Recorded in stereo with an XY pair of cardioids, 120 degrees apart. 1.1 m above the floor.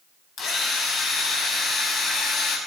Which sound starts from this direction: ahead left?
A drill, at 0.4 s.